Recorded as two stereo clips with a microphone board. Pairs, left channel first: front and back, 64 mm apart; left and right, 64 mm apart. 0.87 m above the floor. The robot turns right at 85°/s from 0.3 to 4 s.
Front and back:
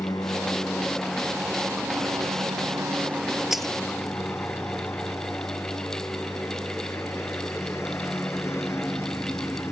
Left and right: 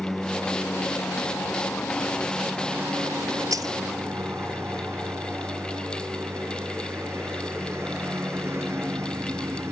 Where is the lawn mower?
Straight ahead; by 9.7 s 45° right.